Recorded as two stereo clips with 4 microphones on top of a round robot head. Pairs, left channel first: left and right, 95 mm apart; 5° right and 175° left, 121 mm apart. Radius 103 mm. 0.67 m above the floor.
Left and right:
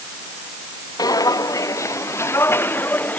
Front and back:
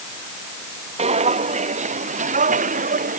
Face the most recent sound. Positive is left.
turn(degrees=165)